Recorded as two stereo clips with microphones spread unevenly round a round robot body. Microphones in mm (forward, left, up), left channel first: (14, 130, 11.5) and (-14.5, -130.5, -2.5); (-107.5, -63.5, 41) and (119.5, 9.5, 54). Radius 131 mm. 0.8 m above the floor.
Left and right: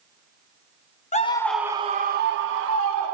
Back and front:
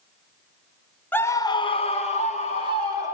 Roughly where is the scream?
Behind left.